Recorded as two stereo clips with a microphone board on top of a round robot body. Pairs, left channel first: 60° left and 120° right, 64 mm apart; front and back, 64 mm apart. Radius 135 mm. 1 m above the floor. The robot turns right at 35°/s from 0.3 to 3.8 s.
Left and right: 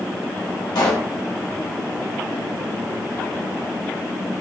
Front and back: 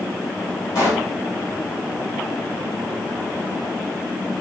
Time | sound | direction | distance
0.8 | a pop | 50° left | 1.3 m